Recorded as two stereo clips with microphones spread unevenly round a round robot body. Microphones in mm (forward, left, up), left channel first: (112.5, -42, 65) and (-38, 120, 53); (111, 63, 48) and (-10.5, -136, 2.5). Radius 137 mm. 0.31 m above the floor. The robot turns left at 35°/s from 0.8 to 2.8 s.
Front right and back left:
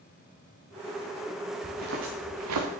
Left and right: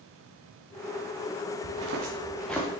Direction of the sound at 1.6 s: 160° right.